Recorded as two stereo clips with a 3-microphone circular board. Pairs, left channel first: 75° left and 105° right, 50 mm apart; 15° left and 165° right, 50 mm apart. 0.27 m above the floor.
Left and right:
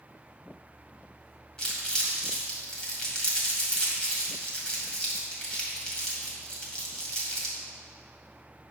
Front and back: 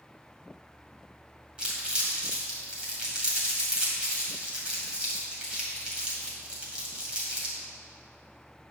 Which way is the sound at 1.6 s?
135° left.